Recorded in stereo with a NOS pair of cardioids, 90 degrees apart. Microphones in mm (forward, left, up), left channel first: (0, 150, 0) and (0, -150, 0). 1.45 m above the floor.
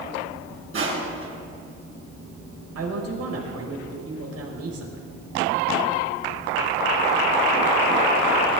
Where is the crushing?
45° right, 7.5 m.